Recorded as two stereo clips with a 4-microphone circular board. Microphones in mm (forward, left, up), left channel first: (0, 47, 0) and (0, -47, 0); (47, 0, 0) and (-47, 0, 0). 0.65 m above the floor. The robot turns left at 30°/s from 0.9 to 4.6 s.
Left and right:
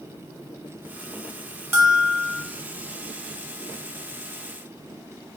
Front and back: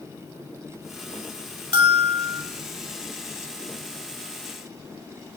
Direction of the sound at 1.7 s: 155° right.